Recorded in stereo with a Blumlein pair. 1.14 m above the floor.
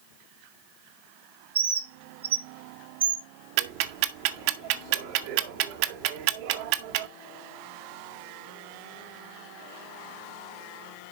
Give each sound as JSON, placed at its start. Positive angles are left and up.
{"t": 1.6, "sound": "a bird", "azimuth_deg": -65, "distance_m": 1.0}
{"t": 3.6, "sound": "ticking", "azimuth_deg": -45, "distance_m": 0.7}